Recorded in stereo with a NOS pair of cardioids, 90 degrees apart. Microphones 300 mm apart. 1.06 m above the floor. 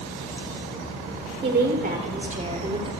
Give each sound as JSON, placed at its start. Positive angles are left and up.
{"t": 1.4, "sound": "a woman speaking", "azimuth_deg": -35, "distance_m": 4.0}